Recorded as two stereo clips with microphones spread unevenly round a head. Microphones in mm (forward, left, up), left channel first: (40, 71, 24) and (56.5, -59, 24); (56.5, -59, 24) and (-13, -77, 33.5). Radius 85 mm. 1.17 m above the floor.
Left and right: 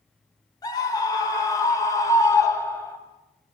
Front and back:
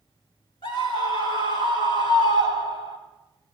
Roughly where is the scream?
Ahead left.